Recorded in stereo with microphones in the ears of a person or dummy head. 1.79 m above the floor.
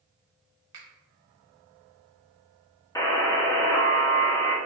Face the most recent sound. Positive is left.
turn(degrees=15)  # may be behind; listen again after turning